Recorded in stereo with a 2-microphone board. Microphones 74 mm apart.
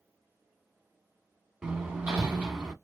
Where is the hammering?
15° right (ahead or behind), 0.8 m.